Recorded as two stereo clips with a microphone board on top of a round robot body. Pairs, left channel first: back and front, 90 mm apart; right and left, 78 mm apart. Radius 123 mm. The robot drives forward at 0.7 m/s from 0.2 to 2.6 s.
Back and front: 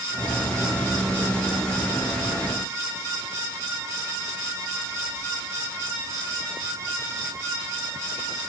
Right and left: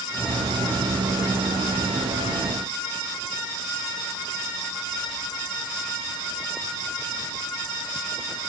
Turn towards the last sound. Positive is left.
No sound to turn to.